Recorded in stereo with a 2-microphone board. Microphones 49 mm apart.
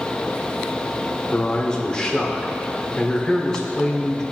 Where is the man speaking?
15° left (ahead or behind), 0.7 m.